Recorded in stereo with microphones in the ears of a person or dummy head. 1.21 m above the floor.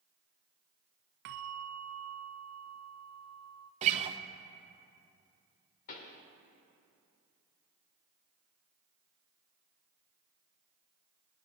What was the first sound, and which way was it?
A bell, 50° right (ahead or behind).